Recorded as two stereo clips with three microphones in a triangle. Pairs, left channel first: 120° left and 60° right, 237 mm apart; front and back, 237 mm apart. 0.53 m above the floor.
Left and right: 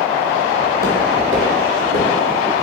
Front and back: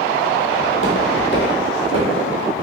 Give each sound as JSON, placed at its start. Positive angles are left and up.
{"t": 0.6, "sound": "footsteps", "azimuth_deg": -5, "distance_m": 1.0}